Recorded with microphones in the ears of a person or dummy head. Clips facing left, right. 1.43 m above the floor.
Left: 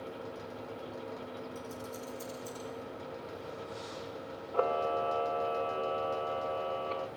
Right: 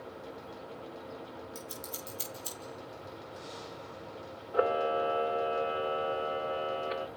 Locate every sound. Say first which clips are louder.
1.6 s scissors: left 2 dB; 80° right, 3.5 m
4.5 s a camera shutter: right 2 dB; 20° right (ahead or behind), 0.6 m